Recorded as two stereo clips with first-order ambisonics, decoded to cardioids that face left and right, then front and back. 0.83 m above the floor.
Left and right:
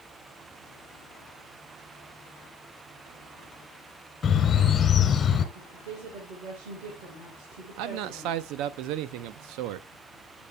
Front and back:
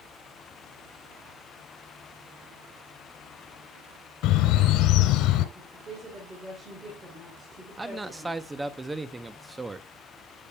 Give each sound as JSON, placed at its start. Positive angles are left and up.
{"t": 4.2, "sound": "a bird", "azimuth_deg": 20, "distance_m": 1.4}
{"t": 5.5, "sound": "a woman speaking", "azimuth_deg": -105, "distance_m": 3.5}
{"t": 7.8, "sound": "a man speaking", "azimuth_deg": -100, "distance_m": 0.7}